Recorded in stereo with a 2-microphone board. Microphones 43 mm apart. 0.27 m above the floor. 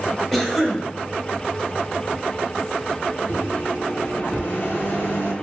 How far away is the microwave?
About 1.9 m.